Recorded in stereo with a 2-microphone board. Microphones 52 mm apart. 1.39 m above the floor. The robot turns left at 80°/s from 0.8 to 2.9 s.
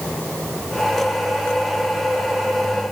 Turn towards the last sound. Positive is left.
No sound to turn to.